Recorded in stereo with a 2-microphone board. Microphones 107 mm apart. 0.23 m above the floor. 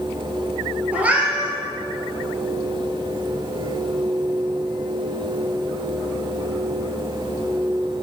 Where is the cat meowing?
10° right (ahead or behind), 1.7 m.